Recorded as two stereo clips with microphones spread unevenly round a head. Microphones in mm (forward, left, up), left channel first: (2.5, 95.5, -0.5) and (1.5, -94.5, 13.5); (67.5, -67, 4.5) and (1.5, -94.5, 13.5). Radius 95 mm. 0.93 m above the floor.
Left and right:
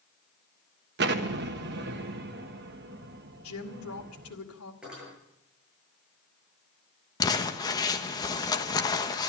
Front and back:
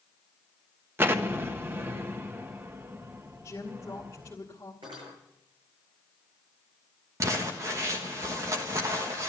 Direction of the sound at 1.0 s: 100° right.